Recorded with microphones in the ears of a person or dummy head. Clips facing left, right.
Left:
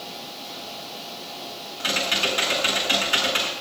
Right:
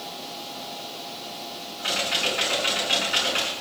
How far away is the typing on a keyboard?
About 8 m.